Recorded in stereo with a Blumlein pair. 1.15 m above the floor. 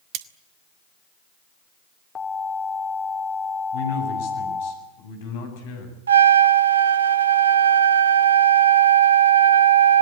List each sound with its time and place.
0.1 s cutlery clinking: 40° right, 1.3 m
2.1 s an alarm: 20° left, 4.5 m
3.7 s a man speaking: 55° left, 8 m
6.1 s a trumpet: 70° right, 0.8 m